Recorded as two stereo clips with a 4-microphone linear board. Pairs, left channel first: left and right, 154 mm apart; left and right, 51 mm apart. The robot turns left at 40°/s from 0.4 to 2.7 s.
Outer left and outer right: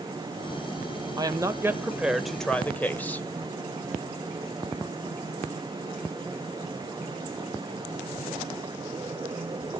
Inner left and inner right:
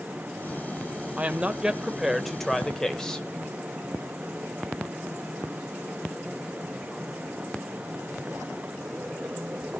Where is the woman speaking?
135° right, 1.3 m; by 3.3 s 165° left, 1.3 m.